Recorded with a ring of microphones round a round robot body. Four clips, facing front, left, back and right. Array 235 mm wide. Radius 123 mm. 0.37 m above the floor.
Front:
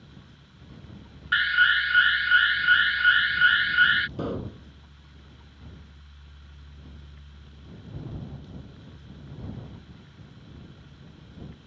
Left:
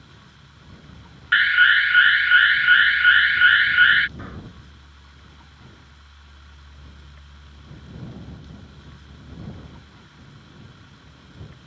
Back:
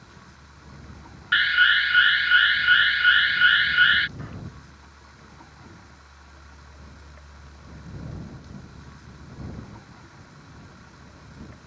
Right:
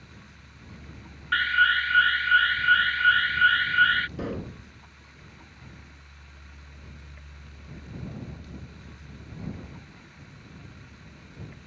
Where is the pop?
30° right.